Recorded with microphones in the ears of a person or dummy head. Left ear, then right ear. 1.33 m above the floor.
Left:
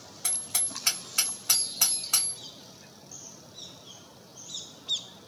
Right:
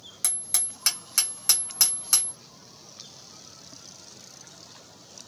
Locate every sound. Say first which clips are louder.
0.2 s hammering: right 2 dB; 55° right (ahead or behind), 1.3 m